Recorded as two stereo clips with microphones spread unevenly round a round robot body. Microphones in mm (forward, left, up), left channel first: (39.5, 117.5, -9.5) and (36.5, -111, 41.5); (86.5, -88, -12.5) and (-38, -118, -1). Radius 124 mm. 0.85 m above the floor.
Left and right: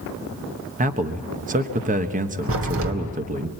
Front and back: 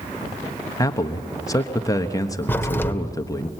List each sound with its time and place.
0.8 s a man speaking: 35° right, 1.3 m
2.5 s a crack: 60° right, 2.5 m